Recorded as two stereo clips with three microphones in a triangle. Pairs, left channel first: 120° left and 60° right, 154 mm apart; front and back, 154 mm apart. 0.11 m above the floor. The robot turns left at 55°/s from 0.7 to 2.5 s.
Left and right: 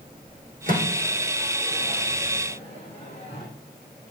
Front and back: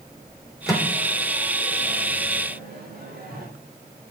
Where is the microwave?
90° right, 4 m; by 3.5 s 170° left, 4 m.